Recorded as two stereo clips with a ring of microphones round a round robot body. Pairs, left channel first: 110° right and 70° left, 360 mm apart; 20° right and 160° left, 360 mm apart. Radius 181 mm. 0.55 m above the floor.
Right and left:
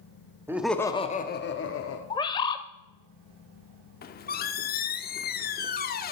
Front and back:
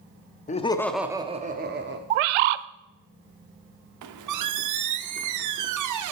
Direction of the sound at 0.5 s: 5° right.